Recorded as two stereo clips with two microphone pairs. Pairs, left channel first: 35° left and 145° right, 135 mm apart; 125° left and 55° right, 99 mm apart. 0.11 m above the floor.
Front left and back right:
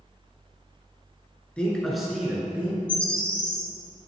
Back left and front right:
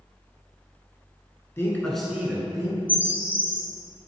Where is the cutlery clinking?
No cutlery clinking in this recording.